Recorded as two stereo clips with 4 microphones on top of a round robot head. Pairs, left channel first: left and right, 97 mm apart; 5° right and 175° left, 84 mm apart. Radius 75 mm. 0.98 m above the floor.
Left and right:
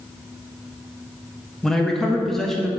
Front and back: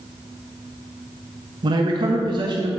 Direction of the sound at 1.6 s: 175° left.